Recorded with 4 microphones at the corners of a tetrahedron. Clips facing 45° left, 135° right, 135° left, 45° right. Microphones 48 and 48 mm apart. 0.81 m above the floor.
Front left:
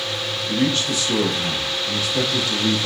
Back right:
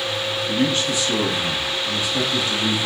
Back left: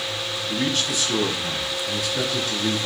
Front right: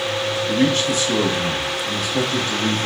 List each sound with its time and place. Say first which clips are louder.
0.5 s a man speaking: front left 1 dB, front right 6 dB; 70° right, 1.4 m